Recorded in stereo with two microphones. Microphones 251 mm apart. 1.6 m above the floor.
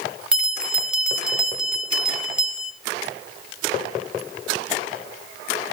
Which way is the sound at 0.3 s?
5° right (ahead or behind).